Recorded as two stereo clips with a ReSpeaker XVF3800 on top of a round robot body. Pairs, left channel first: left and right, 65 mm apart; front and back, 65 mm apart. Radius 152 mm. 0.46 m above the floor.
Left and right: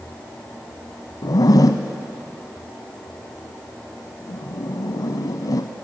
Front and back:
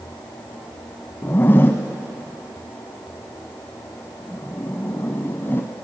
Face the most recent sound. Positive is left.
turn(degrees=60)